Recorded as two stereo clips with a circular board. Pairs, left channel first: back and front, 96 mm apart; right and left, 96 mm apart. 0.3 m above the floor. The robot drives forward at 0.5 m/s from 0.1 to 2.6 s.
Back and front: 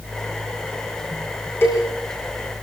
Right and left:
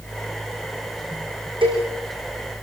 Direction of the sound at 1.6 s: 115° left.